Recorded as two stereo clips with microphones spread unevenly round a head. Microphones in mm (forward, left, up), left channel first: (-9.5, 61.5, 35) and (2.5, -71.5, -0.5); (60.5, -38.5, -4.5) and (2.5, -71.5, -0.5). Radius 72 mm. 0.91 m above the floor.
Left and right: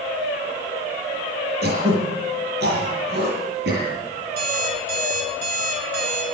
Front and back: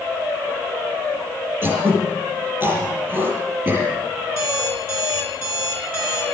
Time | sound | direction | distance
1.6 | throat clearing | 95° right | 7 m
4.3 | an alarm clock | 105° right | 6.5 m